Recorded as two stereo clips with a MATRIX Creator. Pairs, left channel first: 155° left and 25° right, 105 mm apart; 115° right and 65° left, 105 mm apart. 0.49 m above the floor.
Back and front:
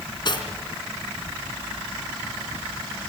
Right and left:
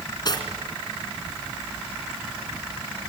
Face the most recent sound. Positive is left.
turn(degrees=-160)